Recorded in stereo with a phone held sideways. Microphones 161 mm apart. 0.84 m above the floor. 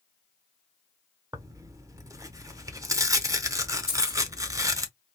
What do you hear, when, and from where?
1.3 s tearing paper: 20° right (ahead or behind), 0.7 m
3.9 s keys jangling: 40° right (ahead or behind), 2.5 m